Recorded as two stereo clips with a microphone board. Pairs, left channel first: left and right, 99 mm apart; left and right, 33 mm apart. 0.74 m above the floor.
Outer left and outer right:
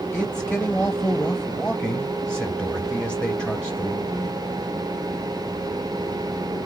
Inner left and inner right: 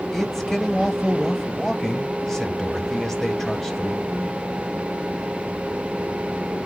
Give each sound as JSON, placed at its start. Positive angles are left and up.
{"t": 0.1, "sound": "a man speaking", "side_deg": 10, "distance_m": 1.1}